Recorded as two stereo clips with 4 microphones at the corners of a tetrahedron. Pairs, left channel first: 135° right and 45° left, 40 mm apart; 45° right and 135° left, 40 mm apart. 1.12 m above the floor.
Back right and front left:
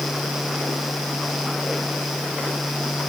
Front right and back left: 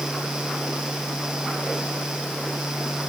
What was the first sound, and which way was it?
Only background noise.